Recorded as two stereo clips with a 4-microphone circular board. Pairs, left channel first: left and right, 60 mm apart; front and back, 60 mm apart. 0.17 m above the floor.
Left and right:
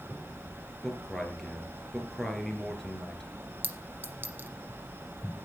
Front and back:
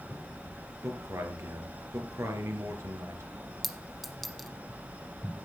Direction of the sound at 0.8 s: 175° left.